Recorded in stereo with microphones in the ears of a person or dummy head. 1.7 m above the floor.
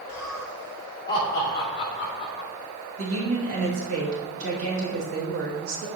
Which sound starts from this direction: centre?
Laughter, at 0.1 s.